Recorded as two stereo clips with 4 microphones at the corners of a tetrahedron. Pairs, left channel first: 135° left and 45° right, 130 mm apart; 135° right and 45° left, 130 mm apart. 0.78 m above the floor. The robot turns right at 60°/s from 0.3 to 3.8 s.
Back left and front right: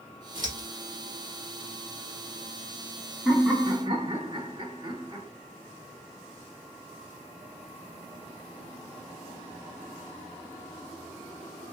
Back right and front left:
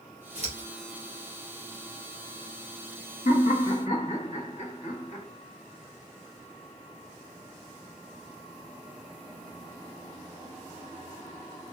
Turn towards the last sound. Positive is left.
turn(degrees=-100)